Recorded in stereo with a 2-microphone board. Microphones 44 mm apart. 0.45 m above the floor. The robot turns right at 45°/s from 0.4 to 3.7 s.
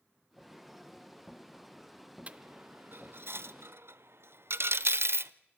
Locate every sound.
2.3 s a dropped coin: 30° right (ahead or behind), 0.6 m; by 5.3 s 65° right (ahead or behind), 0.6 m